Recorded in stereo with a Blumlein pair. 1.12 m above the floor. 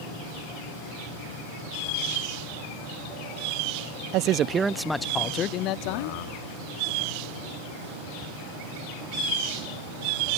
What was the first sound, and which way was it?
A man speaking, 40° right.